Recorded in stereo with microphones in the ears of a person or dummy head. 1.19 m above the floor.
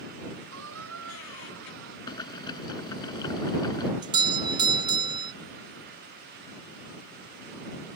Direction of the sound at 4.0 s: 20° right (ahead or behind).